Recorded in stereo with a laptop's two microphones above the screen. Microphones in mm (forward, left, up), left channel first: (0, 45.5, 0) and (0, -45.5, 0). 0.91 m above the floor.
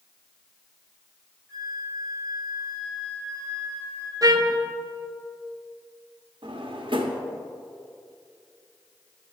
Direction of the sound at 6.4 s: 65° right (ahead or behind).